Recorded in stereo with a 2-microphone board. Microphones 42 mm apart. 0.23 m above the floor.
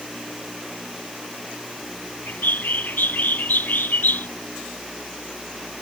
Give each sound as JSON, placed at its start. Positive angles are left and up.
{"t": 2.3, "sound": "a bird", "side_deg": 50}